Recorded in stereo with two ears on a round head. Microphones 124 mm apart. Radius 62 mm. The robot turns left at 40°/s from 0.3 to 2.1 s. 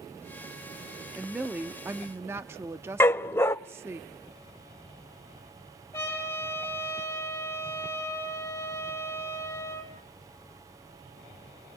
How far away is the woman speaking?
About 0.6 m.